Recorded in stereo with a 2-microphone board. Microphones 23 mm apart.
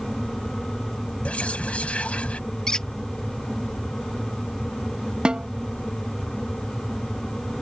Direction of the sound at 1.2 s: 70° left (ahead or behind).